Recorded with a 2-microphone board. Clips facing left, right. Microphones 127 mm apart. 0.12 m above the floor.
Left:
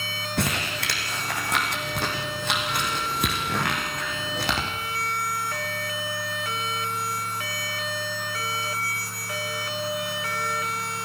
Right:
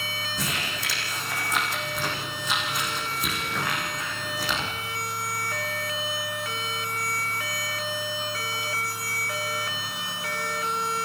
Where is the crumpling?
65° left (ahead or behind), 6 m.